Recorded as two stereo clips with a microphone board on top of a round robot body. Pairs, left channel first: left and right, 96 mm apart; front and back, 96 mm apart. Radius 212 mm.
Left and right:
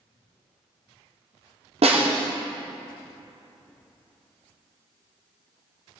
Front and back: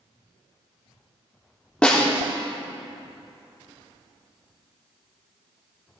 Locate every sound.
1.8 s a snare drum: 80° right, 1.5 m